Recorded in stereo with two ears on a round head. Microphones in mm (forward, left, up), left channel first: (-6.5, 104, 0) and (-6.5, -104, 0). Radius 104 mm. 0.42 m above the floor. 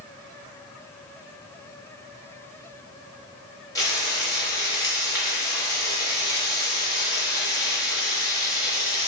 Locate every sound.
3.8 s frying: 15° left (ahead or behind), 0.6 m